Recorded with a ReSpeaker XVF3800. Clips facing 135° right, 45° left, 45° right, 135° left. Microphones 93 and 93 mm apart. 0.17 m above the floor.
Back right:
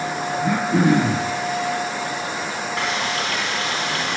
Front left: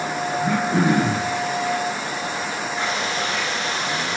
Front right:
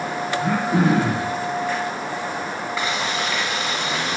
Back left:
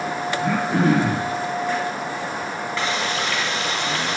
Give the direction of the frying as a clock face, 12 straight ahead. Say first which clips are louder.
Back right 1 dB, even; 4 o'clock.